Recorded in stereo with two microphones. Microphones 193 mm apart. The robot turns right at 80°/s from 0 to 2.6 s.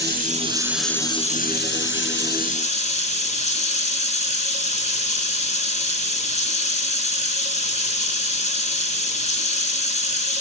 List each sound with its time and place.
0.0 s running water: 65° right, 1.0 m; by 10.4 s 140° left, 1.0 m